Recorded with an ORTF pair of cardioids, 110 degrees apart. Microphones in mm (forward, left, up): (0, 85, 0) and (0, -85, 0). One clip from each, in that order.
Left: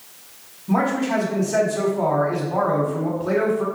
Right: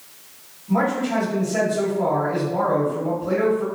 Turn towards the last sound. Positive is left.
turn(degrees=70)